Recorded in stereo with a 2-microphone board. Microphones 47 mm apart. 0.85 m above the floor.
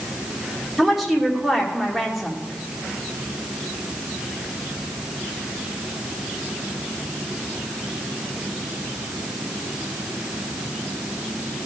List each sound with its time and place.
0.8 s a woman speaking: 5° right (ahead or behind), 2.5 m